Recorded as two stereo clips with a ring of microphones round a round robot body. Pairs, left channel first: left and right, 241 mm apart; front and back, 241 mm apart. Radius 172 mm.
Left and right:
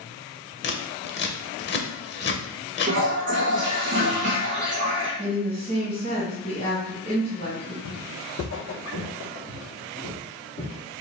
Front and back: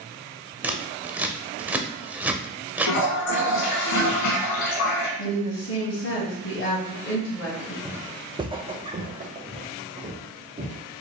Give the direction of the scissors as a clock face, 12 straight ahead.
9 o'clock.